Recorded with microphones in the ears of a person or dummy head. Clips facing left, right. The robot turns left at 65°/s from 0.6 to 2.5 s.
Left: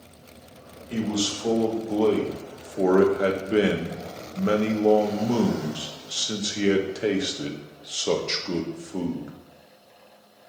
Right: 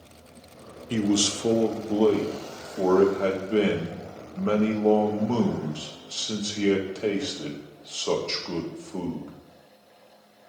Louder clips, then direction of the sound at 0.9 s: Right 3 dB; 95° right.